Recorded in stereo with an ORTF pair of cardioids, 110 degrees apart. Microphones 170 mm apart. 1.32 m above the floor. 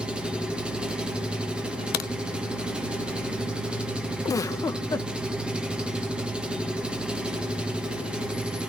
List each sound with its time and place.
0.0 s an engine running: 5° right, 1.4 m
1.9 s a crack: 65° left, 0.8 m
4.2 s a giggle: 20° left, 1.0 m